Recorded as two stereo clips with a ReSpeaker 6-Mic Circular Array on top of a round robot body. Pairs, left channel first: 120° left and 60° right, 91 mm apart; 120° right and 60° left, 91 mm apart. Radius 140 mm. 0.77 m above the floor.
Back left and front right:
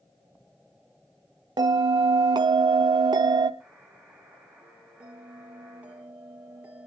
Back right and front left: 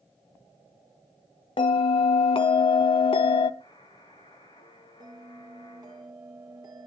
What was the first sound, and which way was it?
A bell, 100° right.